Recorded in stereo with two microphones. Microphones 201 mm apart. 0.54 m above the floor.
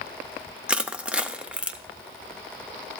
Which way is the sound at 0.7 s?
5° right (ahead or behind).